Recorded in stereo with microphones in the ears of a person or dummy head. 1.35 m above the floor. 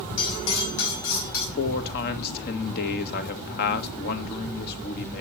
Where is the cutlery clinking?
75° left (ahead or behind), 5 m.